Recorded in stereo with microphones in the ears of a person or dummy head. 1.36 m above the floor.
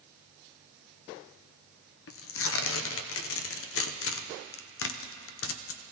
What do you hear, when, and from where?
2.1 s tearing paper: 70° left (ahead or behind), 0.8 m